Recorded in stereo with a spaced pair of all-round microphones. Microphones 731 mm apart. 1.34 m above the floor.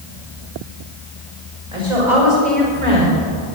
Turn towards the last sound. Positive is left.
turn(degrees=-80)